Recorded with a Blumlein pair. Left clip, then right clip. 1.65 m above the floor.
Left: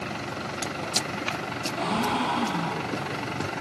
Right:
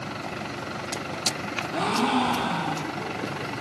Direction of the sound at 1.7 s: 55° right.